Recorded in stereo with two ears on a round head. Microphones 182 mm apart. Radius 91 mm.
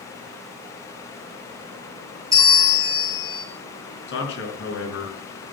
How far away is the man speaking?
About 5.5 m.